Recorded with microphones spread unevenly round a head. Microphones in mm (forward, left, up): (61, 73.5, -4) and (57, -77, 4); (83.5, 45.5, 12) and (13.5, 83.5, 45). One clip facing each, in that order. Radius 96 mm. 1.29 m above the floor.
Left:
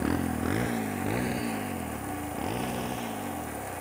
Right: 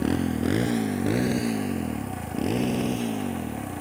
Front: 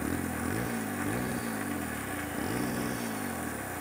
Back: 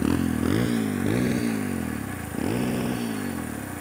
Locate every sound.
0.0 s a motorcycle: 160° right; by 3.8 s 140° right